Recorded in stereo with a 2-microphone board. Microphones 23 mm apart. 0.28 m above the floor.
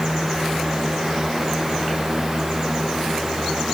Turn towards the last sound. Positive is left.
No sound to turn to.